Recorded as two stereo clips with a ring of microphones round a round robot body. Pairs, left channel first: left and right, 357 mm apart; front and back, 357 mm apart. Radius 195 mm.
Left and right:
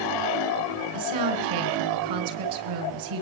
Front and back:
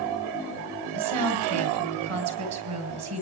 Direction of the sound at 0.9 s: 130° right.